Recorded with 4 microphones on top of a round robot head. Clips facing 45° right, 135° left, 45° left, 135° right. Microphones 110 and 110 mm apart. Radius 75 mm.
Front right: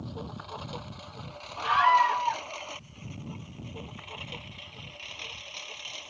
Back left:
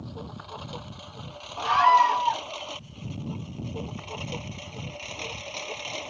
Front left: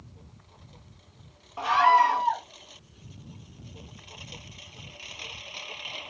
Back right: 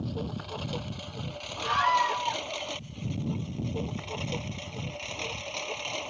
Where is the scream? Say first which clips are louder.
Back left 3 dB, front left 6 dB; 80° left.